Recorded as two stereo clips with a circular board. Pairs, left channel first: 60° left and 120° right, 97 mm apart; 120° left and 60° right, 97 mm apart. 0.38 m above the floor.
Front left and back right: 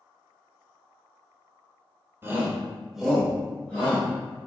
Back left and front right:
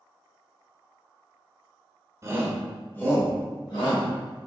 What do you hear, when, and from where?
2.2 s a shout: 75° right, 1.0 m; by 4.1 s 135° left, 1.8 m